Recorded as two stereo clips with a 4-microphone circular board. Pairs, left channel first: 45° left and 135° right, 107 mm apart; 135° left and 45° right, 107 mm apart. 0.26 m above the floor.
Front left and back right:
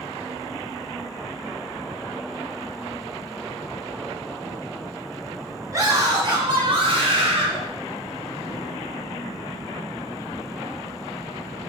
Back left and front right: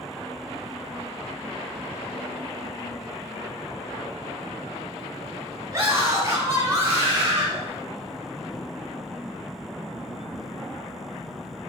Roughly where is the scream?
Right.